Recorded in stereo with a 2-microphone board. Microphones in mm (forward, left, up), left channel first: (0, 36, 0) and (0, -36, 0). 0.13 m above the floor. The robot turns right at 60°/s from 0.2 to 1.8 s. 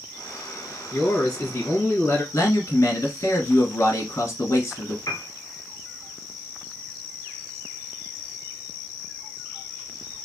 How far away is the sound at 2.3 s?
About 1.9 m.